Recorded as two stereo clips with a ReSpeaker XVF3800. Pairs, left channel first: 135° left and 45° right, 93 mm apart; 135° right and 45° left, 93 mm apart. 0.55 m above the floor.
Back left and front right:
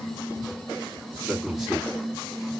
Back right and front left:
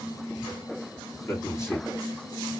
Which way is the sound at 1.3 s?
130° right.